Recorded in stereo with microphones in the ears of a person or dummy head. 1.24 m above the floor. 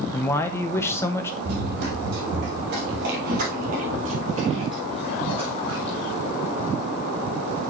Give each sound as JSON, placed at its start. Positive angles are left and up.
{"t": 0.1, "sound": "a man speaking", "side_deg": 20, "distance_m": 0.8}
{"t": 1.4, "sound": "running footsteps", "side_deg": -60, "distance_m": 2.5}